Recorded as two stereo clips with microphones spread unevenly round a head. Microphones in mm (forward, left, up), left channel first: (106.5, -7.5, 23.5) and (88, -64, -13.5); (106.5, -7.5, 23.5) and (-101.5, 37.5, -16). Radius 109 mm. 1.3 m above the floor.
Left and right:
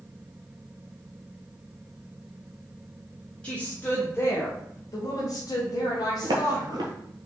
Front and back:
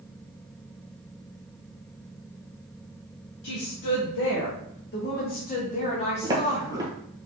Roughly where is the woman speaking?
Ahead.